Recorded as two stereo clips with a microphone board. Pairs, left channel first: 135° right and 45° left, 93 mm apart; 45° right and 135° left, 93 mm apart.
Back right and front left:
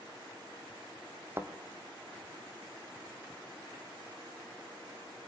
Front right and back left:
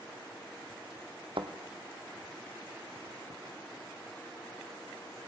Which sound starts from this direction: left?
A thud, at 1.4 s.